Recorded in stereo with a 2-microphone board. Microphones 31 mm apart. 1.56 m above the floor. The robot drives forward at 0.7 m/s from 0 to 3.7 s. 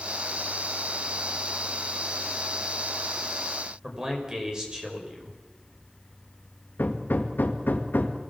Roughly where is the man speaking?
Right.